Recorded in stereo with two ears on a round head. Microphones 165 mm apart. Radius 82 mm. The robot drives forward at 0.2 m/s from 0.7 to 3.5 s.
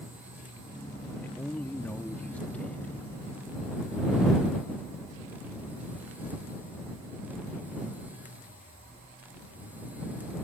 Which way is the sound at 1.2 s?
10° left (ahead or behind).